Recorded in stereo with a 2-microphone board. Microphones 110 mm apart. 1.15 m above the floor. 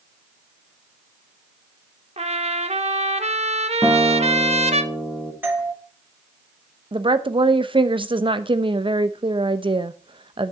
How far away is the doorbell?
About 1.7 m.